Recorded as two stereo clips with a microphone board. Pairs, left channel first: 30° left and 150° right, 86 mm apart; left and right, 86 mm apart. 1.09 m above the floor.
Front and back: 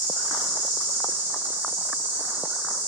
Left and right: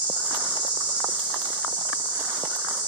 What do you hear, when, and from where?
0.0 s an insect: 90° right, 4 m